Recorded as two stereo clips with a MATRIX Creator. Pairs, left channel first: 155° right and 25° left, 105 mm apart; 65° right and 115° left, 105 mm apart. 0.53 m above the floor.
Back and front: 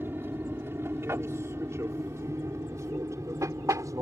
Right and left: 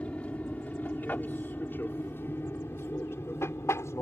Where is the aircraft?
10° right; by 4.0 s 20° right.